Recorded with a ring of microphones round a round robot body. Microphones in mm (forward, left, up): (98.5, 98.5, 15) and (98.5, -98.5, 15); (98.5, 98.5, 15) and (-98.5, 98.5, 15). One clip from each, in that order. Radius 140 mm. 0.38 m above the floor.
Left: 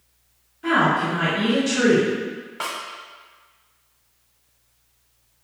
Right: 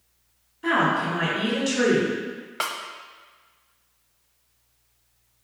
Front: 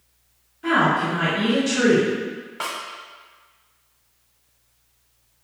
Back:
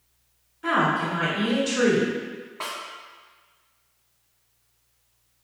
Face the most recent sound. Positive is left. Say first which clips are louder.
# right 1 dB, front 4 dB
turn(degrees=-60)